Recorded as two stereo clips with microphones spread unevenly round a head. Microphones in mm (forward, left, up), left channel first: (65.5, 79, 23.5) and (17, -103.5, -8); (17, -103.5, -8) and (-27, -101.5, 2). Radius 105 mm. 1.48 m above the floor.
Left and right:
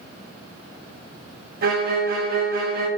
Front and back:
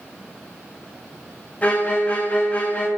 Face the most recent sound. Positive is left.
turn(degrees=-65)